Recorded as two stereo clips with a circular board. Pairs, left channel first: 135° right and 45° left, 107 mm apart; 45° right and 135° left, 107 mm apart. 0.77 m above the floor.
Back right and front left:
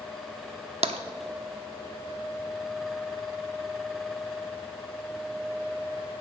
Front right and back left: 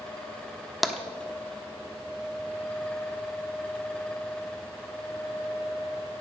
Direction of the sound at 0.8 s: 45° left.